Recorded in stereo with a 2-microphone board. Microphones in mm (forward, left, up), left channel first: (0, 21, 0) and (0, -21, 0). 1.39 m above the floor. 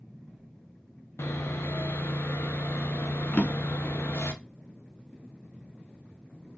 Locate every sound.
1.2 s sawing: 80° left, 0.7 m
3.3 s a drawer: 35° left (ahead or behind), 1.0 m